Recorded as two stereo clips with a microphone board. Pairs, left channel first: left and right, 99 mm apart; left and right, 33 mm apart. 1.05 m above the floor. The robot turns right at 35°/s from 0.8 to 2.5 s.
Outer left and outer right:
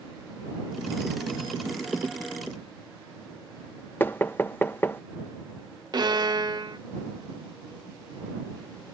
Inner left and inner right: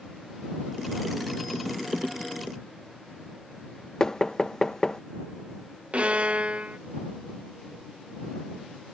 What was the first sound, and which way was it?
Knocking, 20° left (ahead or behind).